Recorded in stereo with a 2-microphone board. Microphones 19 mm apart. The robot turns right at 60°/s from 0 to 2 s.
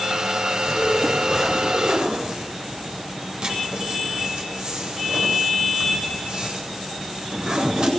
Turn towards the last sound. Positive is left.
turn(degrees=-55)  # may be behind; listen again after turning